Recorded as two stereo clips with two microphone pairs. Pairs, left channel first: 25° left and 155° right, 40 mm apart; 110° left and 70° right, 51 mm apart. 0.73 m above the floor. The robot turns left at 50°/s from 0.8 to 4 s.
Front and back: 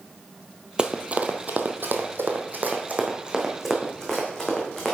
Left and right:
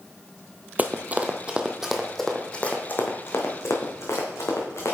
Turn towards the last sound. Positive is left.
turn(degrees=100)